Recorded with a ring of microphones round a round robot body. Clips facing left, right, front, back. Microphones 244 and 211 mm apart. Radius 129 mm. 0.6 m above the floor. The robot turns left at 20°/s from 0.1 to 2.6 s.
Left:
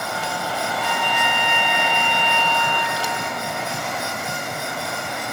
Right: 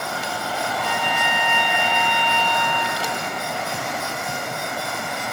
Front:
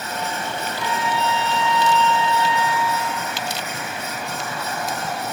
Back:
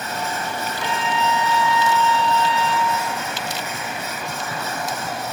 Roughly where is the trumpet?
Behind left.